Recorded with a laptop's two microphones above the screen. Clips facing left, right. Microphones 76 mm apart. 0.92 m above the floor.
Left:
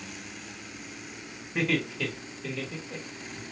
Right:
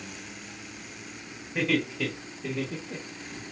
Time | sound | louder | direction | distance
1.6 | laughter | right 1 dB | 5° left (ahead or behind) | 1.5 m